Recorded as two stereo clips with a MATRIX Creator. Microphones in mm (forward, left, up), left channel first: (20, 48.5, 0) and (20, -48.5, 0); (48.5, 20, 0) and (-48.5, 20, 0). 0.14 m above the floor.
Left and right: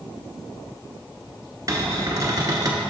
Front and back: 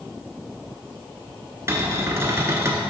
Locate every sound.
1.7 s a cupboard door: 130° right, 0.9 m